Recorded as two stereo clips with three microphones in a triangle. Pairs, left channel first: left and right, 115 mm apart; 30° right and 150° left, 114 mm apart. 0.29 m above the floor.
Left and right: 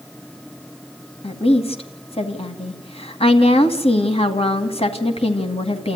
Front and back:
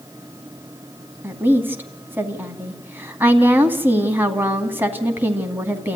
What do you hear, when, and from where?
1.2 s a woman speaking: 80° left, 2.5 m